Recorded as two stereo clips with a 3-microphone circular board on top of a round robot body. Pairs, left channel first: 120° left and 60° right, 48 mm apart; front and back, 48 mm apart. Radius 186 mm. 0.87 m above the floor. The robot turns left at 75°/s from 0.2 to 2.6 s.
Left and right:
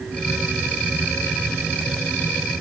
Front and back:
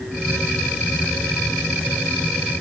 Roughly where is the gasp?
I don't hear a gasp.